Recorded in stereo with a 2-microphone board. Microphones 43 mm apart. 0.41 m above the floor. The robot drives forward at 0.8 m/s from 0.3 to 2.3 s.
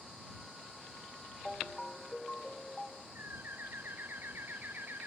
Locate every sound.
1.4 s a ringtone: 5° left (ahead or behind)
3.1 s a bird: 55° right (ahead or behind)